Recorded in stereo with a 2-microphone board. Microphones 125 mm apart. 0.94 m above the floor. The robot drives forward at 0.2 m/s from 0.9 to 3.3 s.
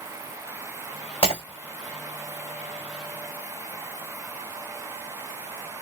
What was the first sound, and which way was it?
Breaking glass, 50° left (ahead or behind).